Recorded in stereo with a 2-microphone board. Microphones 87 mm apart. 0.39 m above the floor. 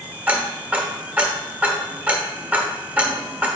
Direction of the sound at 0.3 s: 20° right (ahead or behind).